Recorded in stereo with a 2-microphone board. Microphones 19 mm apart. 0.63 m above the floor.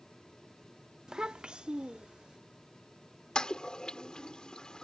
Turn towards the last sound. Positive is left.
turn(degrees=55)  # may be behind; listen again after turning